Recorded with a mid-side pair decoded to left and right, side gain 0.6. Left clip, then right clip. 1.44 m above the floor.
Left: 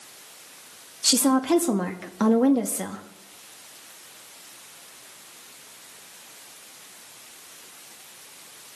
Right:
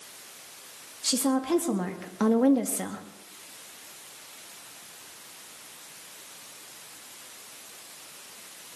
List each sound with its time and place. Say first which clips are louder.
1.0 s a woman speaking: left 6 dB; 35° left, 2 m; by 3.0 s straight ahead, 1.9 m